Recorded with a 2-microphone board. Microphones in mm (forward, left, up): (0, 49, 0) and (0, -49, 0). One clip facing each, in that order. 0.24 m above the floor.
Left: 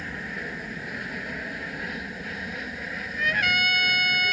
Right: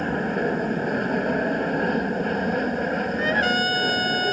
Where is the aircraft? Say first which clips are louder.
Right 12 dB; 50° right (ahead or behind).